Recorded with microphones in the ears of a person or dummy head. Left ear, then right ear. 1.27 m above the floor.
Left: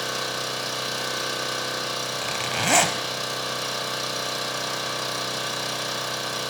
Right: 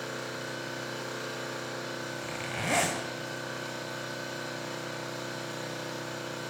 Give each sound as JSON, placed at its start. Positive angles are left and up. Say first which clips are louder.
{"t": 0.0, "sound": "an engine running", "louder": "left 9 dB", "side_deg": 50, "distance_m": 0.9}
{"t": 2.2, "sound": "a zipper", "louder": "left 9 dB", "side_deg": 35, "distance_m": 0.6}